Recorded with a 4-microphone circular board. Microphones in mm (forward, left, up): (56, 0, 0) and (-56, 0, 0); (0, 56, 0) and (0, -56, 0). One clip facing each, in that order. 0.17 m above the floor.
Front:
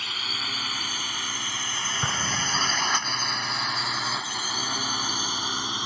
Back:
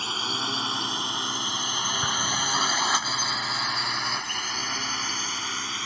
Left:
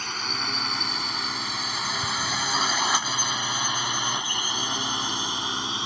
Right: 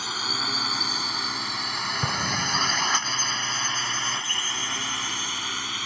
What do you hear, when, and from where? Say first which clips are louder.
0.0 s a drone: back 5 dB, right 1 dB; 165° right; by 5.9 s 50° left
2.0 s an explosion: front 2 dB, right 4 dB; 70° right